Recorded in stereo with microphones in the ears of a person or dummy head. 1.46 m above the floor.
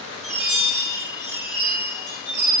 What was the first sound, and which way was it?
A chime, 40° left (ahead or behind).